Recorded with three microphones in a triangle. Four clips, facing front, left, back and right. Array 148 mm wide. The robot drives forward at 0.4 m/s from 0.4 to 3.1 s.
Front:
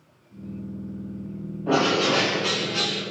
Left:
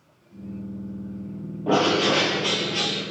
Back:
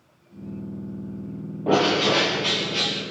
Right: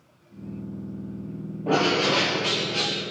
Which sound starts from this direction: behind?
A bird, at 1.7 s.